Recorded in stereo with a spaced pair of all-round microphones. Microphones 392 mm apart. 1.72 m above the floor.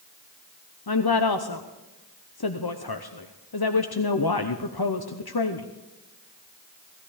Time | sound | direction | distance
0.9 | a woman speaking | 70° left (ahead or behind) | 0.9 m